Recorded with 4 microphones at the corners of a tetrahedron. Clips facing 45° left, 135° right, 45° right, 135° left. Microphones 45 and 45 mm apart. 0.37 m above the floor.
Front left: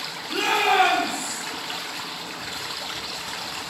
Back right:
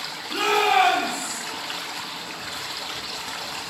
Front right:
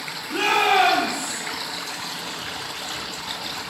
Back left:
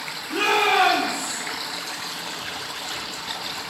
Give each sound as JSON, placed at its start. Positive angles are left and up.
{"t": 0.3, "sound": "a shout", "azimuth_deg": 155, "distance_m": 1.3}